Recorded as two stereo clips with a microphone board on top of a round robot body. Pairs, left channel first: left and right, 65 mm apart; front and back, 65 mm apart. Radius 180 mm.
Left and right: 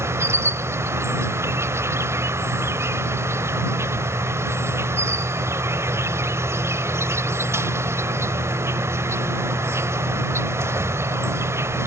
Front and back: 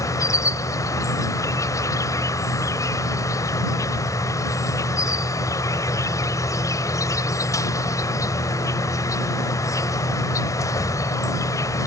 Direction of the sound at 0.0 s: 40° right.